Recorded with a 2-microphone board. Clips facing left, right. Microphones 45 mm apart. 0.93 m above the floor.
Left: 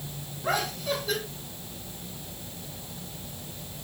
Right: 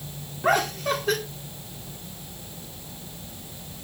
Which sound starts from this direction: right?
Laughter, at 0.4 s.